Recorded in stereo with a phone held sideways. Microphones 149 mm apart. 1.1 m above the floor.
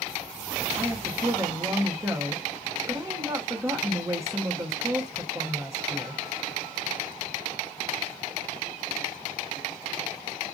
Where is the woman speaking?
20° right (ahead or behind), 0.6 m.